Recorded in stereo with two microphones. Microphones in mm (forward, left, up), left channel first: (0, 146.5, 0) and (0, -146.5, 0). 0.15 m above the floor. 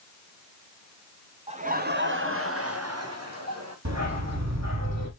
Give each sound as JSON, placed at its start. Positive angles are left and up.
{"t": 1.5, "sound": "laughter", "side_deg": -20, "distance_m": 1.4}
{"t": 3.9, "sound": "a dog barking", "side_deg": -65, "distance_m": 2.5}